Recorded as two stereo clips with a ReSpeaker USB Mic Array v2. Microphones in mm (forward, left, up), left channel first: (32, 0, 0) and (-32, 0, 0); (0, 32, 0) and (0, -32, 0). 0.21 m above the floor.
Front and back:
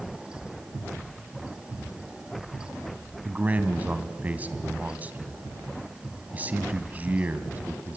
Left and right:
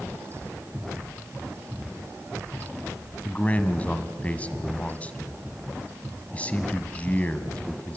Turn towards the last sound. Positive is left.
turn(degrees=140)